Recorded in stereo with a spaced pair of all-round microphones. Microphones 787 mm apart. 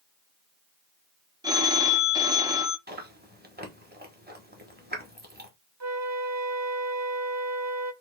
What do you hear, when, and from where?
1.4 s a phone ringing: 5° right (ahead or behind), 0.6 m
2.9 s chewing: 10° right (ahead or behind), 1.2 m
5.8 s a flute: 25° right (ahead or behind), 0.5 m